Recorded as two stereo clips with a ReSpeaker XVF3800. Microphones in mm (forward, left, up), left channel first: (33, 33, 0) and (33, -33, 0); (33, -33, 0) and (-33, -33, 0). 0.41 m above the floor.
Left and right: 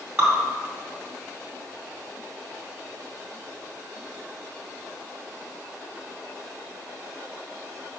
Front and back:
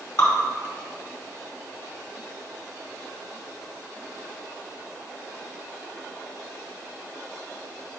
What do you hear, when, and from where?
0.2 s dripping: 20° right, 2.5 m